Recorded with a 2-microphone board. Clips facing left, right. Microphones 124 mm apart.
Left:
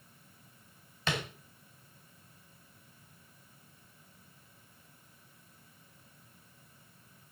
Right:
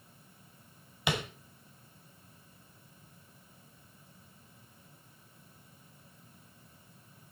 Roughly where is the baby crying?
I don't hear a baby crying.